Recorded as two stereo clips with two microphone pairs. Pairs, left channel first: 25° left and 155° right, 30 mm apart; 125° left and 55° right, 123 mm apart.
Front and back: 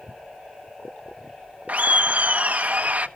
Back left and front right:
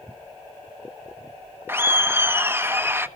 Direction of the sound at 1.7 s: 125° right.